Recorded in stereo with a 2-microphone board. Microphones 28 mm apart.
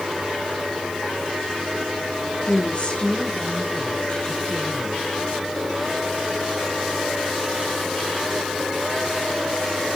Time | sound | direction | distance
2.5 | a woman speaking | 50° left (ahead or behind) | 1.9 m